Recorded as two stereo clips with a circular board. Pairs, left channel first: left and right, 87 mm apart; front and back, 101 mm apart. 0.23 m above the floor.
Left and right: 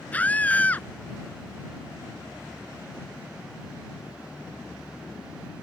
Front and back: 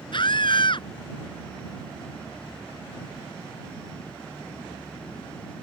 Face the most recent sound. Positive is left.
turn(degrees=20)